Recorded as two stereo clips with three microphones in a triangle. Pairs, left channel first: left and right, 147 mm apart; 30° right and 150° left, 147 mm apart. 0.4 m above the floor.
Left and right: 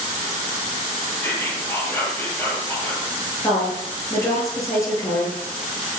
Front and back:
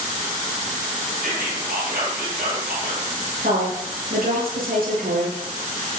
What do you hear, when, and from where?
1.2 s whispering: 165° left, 9.5 m
3.4 s a woman speaking: 160° left, 8.5 m